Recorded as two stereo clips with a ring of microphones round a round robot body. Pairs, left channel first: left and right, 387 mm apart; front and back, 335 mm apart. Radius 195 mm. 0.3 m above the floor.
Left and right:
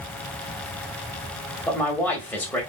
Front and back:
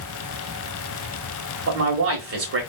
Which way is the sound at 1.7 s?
175° left.